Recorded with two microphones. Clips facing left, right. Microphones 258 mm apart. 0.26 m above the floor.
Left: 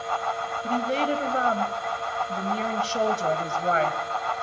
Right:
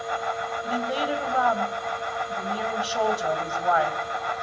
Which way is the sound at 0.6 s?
30° left (ahead or behind).